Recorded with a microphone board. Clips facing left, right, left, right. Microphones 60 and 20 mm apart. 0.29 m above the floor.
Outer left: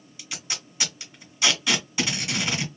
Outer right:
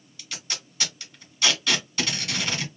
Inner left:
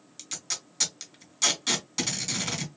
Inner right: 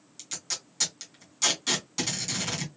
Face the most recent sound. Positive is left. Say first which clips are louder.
# outer left 1 dB, even
turn(degrees=10)  # may be behind; listen again after turning